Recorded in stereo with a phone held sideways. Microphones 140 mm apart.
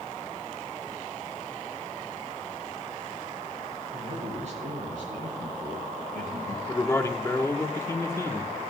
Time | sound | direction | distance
3.9 | a man speaking | 50° right (ahead or behind) | 4.5 m
6.7 | a man speaking | 20° left (ahead or behind) | 1.3 m